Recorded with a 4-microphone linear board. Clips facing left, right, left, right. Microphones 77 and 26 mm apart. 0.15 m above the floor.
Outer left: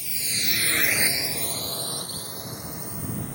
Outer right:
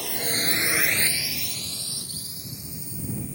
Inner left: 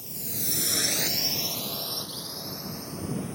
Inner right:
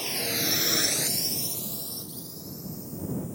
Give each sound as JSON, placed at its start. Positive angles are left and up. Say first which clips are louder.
{"t": 0.0, "sound": "a drone", "louder": "outer right 6 dB, inner right 9 dB", "side_deg": -65}